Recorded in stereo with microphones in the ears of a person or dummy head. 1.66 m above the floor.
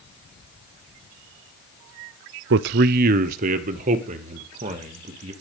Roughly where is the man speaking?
Right.